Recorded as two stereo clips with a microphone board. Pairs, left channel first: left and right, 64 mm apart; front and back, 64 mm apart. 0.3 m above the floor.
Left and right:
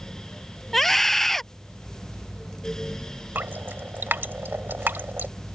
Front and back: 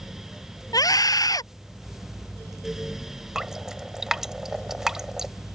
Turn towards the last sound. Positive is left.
turn(degrees=-105)